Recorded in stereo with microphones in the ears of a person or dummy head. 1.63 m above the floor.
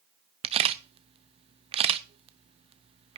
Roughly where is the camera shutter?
Right.